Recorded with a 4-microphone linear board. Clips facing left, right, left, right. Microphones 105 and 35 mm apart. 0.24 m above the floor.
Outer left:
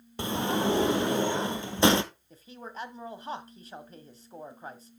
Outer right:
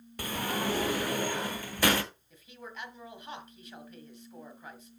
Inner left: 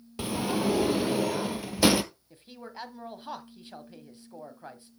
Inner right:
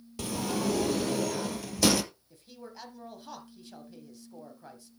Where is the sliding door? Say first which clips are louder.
Outer left 5 dB, inner left 3 dB; 20° left (ahead or behind), 0.9 m.